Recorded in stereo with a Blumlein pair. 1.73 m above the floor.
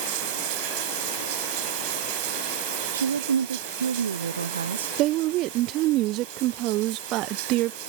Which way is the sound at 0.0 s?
45° right.